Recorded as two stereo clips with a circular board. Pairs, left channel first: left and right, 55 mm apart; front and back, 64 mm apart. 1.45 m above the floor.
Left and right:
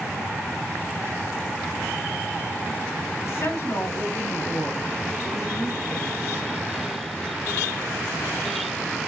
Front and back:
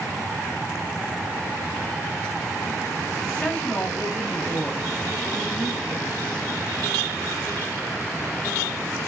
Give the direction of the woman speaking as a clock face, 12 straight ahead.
9 o'clock.